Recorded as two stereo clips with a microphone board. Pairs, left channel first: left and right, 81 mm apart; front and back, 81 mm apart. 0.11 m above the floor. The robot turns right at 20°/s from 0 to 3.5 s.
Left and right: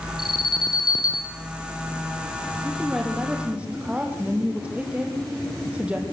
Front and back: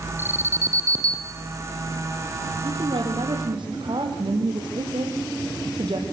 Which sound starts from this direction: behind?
A woman speaking, at 2.6 s.